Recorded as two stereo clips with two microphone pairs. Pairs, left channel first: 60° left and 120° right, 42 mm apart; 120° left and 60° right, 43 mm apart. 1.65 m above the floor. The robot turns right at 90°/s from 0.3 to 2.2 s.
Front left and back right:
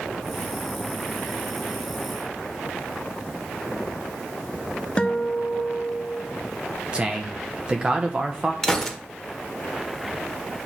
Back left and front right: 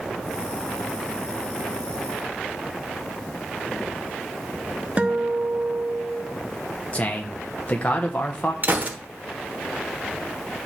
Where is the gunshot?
15° right, 1.1 m.